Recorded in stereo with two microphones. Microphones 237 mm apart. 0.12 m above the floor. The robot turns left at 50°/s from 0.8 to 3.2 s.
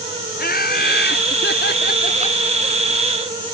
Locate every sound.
0.4 s laughter: 115° left; by 2.4 s 35° left